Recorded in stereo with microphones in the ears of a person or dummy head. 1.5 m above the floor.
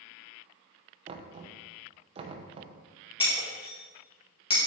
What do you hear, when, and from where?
1.1 s knocking: 35° right (ahead or behind), 0.8 m
3.2 s breaking glass: 35° left (ahead or behind), 1.9 m